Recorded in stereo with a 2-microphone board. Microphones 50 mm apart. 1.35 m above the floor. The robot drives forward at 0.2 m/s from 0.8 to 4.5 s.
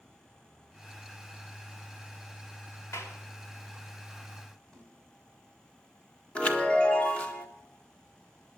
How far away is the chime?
About 1.6 m.